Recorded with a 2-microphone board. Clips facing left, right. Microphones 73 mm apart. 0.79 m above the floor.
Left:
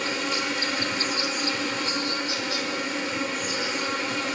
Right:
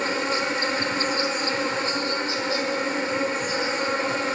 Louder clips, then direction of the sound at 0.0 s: Right 3 dB; 35° right (ahead or behind).